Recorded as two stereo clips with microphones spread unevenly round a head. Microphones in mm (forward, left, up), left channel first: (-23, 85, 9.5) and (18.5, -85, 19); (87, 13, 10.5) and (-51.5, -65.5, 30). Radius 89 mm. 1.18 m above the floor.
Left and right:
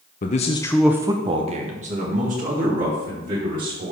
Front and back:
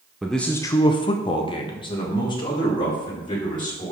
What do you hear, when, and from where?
0.2 s a man speaking: 115° left, 0.8 m; by 3.9 s 35° right, 4 m